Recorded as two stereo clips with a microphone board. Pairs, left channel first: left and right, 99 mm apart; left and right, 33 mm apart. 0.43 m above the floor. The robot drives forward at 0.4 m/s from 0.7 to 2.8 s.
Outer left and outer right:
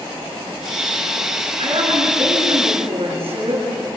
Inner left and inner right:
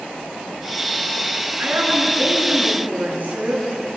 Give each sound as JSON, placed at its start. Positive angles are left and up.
{"t": 1.6, "sound": "a woman speaking", "side_deg": -70, "distance_m": 6.5}